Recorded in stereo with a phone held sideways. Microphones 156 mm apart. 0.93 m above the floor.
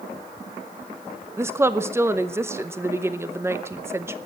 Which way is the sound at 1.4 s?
15° right (ahead or behind).